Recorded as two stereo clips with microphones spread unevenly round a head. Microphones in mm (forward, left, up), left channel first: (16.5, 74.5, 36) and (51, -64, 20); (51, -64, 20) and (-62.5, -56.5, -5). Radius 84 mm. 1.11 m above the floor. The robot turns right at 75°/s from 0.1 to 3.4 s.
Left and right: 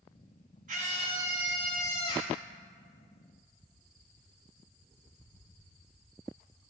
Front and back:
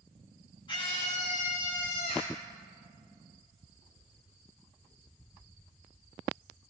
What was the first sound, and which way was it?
A scream, 50° right.